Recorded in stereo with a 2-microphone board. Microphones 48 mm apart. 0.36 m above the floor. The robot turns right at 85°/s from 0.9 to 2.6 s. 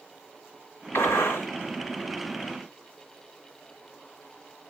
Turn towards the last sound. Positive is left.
turn(degrees=-140)